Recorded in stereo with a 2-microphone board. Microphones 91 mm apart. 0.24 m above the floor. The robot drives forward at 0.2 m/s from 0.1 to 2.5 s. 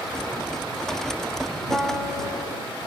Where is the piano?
10° left (ahead or behind), 1.0 m; by 2.6 s 5° left (ahead or behind), 1.1 m.